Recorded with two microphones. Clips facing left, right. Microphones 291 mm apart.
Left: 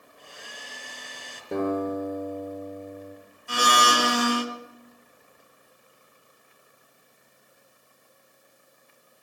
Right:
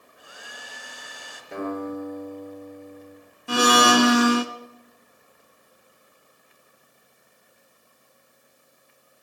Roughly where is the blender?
Right.